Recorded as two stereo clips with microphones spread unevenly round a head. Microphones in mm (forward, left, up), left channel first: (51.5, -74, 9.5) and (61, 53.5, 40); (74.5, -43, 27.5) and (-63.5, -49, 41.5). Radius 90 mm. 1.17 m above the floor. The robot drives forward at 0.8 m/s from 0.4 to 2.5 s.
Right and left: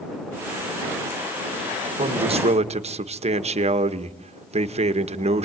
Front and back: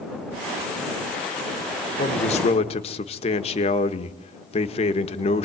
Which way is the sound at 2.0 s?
40° left.